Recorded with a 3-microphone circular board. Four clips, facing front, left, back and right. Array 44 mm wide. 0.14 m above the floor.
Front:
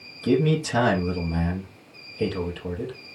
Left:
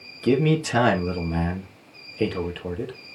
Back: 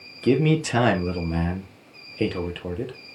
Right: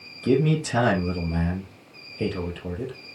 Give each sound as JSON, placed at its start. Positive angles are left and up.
{"t": 0.2, "sound": "a man speaking", "azimuth_deg": 155, "distance_m": 3.0}